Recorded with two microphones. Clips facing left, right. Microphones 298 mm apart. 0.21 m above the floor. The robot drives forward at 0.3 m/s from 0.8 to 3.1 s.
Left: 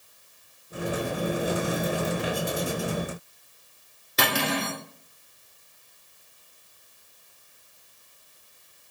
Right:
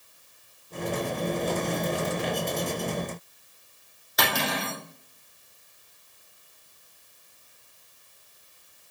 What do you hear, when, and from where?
4.2 s cutlery clinking: 35° left (ahead or behind), 1.6 m